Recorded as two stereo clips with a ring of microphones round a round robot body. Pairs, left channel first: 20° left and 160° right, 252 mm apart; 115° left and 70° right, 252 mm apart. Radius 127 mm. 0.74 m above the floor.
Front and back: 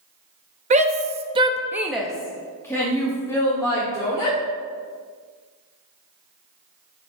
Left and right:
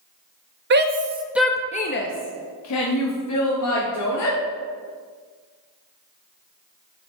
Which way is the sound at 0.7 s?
100° right.